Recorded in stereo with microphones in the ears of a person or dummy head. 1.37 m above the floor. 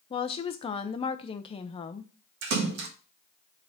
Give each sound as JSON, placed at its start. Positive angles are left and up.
{"t": 0.1, "sound": "a woman speaking", "side_deg": 35, "distance_m": 0.6}
{"t": 2.4, "sound": "a splash", "side_deg": -80, "distance_m": 1.3}